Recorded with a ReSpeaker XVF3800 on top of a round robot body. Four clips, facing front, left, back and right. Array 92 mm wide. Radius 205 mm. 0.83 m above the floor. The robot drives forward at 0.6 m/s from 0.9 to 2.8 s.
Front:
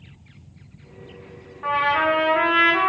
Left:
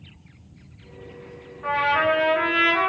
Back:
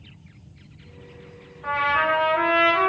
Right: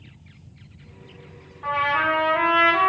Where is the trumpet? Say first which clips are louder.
Left 1 dB, front 2 dB; 25° right, 1.9 m; by 2.9 s 40° right, 1.4 m.